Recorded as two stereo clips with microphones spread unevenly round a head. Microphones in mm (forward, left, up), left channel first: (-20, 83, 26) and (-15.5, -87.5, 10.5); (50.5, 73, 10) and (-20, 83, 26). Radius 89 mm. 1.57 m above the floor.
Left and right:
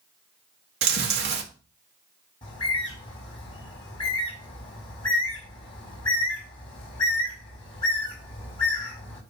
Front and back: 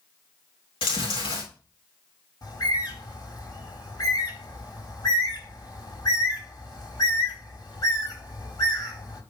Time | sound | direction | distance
0.8 | chewing | 55° right | 1.8 m
2.4 | a bird | 25° left | 4 m